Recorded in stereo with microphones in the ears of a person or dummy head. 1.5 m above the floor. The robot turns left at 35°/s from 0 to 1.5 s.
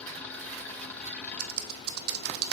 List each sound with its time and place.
1.4 s typing on a keyboard: 55° right (ahead or behind), 0.8 m